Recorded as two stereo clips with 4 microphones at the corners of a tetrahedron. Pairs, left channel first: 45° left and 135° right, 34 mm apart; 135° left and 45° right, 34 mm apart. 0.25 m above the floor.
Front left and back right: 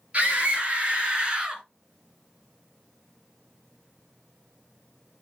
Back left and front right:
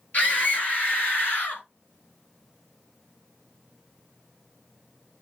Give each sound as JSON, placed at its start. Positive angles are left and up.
{"t": 0.1, "sound": "a scream", "azimuth_deg": 175, "distance_m": 4.0}